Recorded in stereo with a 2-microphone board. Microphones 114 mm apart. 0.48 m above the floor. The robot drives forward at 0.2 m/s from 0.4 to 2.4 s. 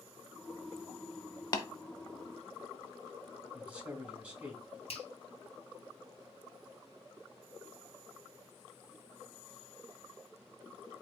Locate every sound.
1.5 s tapping: 35° left (ahead or behind), 0.8 m
3.5 s a man speaking: 15° right (ahead or behind), 2.5 m
4.9 s a finger snap: 60° left (ahead or behind), 2.0 m